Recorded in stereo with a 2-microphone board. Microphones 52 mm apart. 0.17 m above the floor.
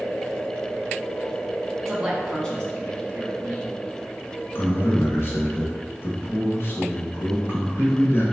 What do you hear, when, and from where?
1.8 s a man speaking: 10° right (ahead or behind), 1.1 m; by 3.8 s 35° left (ahead or behind), 1.8 m
4.5 s a man speaking: 50° left (ahead or behind), 1.7 m